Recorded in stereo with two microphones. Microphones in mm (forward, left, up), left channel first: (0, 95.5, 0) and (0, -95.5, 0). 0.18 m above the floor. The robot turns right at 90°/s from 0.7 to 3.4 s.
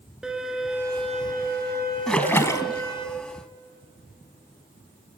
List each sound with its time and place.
0.2 s a violin: 175° right, 2 m; by 3.1 s 35° left, 2 m
2.1 s a splash: centre (ahead or behind), 0.7 m; by 2.8 s 25° left (ahead or behind), 0.7 m